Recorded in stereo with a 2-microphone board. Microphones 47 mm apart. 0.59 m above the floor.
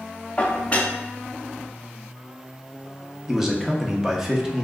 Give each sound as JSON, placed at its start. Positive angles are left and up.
{"t": 0.4, "sound": "dishes clattering", "side_deg": 30, "distance_m": 0.6}
{"t": 3.3, "sound": "a man speaking", "side_deg": -10, "distance_m": 0.8}